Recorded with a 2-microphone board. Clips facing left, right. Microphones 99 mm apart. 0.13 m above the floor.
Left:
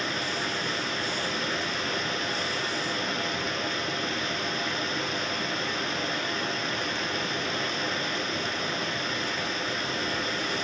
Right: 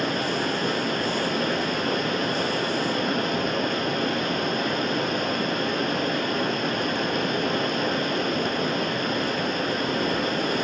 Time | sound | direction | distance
0.0 | running water | 55° right (ahead or behind) | 0.8 m